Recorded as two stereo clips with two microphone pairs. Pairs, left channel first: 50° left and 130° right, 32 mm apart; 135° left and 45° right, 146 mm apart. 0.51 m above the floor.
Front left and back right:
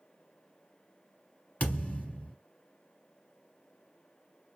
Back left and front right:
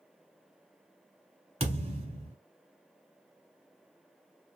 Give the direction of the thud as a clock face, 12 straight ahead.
12 o'clock.